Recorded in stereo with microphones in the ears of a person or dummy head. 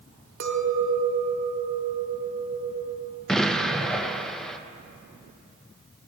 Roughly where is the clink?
Right.